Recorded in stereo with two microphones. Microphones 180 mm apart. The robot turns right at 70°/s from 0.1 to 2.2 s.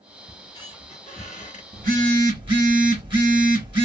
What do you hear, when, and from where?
0.3 s a squeak: 25° left, 0.9 m; by 1.6 s 120° left, 0.9 m
1.7 s a phone buzzing: 60° right, 1.1 m; by 3.9 s 30° right, 1.1 m